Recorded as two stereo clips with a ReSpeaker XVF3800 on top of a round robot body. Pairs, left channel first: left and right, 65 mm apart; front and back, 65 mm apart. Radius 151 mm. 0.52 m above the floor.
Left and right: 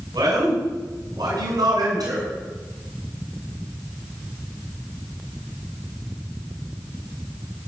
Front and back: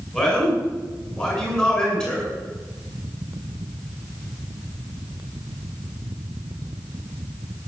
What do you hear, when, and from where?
0.1 s a man speaking: 70° right, 7.5 m